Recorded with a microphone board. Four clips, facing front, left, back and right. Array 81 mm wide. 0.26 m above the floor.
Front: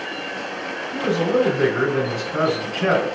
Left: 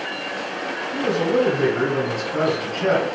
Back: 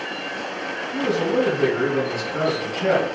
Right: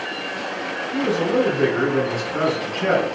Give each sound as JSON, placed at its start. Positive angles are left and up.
{"t": 0.9, "sound": "a man speaking", "azimuth_deg": 10, "distance_m": 1.5}